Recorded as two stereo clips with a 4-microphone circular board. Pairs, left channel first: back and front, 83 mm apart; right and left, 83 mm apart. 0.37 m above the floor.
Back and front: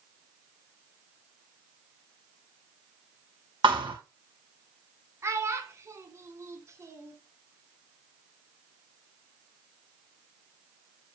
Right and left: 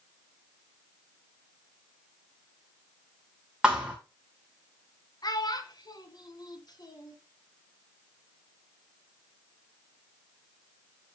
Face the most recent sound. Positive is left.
turn(degrees=-55)